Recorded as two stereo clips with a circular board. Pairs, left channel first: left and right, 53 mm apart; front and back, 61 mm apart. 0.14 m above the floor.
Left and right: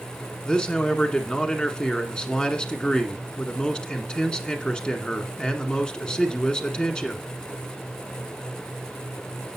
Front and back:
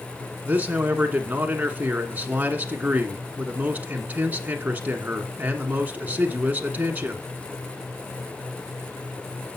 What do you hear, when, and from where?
0.4 s a man speaking: 145° left, 1.5 m